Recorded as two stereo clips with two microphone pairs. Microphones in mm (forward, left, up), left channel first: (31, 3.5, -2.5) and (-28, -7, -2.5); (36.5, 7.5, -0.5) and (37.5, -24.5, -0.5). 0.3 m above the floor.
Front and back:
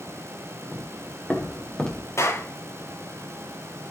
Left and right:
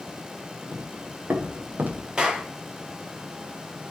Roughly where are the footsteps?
Ahead right.